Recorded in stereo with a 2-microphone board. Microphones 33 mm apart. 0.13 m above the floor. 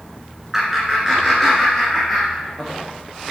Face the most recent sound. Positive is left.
turn(degrees=0)  # may be behind; listen again after turning